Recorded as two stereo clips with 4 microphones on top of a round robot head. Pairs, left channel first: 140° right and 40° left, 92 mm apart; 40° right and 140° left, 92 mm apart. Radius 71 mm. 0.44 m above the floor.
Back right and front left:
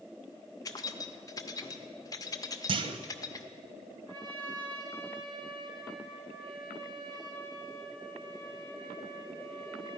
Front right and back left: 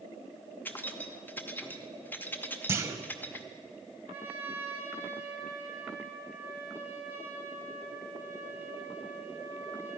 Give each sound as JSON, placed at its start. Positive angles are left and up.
{"t": 0.7, "sound": "keys jangling", "azimuth_deg": -105, "distance_m": 0.9}
{"t": 2.7, "sound": "a clunk", "azimuth_deg": 75, "distance_m": 0.7}
{"t": 4.1, "sound": "a trumpet", "azimuth_deg": 75, "distance_m": 1.7}